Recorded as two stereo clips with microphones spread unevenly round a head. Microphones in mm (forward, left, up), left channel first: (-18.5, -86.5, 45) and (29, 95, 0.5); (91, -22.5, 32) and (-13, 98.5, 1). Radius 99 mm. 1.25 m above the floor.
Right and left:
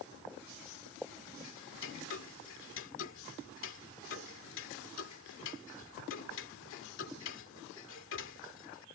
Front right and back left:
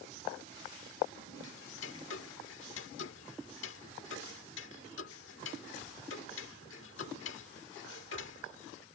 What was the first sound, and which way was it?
Ticking, 80° right.